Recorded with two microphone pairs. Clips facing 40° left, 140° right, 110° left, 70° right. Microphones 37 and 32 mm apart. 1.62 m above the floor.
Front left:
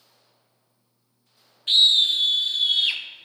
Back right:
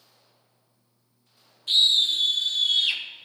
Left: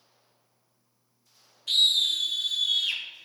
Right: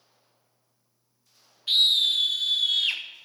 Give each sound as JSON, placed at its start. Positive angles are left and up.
{"t": 1.7, "sound": "a scream", "azimuth_deg": -5, "distance_m": 1.3}